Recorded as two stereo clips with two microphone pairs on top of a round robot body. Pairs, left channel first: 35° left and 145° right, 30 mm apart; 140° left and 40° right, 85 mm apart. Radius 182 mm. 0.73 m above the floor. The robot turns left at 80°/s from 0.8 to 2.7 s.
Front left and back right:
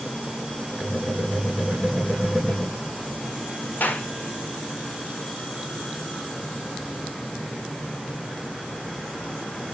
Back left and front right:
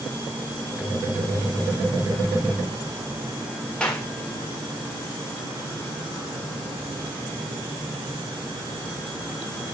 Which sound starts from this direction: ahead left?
A clap, at 3.8 s.